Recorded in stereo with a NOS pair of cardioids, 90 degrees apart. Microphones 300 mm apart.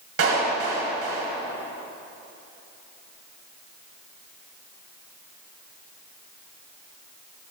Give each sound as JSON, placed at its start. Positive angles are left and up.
{"t": 0.2, "sound": "a clap", "azimuth_deg": -45, "distance_m": 6.0}